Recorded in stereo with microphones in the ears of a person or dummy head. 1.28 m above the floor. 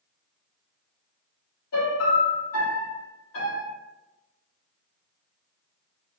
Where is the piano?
80° left, 1.2 m.